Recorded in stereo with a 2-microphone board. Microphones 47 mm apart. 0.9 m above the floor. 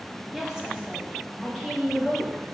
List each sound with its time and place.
0.3 s a woman speaking: 10° right (ahead or behind), 2.0 m; by 2.4 s 20° right (ahead or behind), 3.5 m